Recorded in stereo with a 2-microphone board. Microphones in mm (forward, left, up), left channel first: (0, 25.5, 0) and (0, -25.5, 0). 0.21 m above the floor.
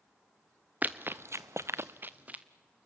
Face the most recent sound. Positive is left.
turn(degrees=-25)  # may be behind; listen again after turning